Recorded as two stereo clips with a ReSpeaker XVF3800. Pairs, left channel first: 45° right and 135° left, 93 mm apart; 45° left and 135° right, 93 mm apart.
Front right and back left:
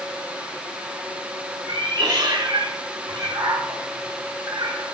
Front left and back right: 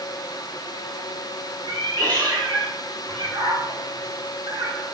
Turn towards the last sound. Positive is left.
turn(degrees=180)